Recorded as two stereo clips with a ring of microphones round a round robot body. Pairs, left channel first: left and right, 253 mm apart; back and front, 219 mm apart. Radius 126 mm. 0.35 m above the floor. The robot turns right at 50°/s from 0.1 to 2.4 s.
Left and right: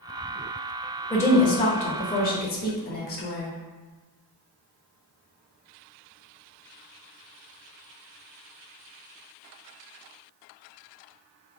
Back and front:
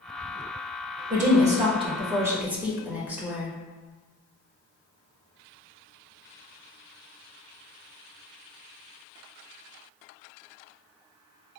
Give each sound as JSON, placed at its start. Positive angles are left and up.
{"t": 1.1, "sound": "a woman speaking", "azimuth_deg": 10, "distance_m": 1.1}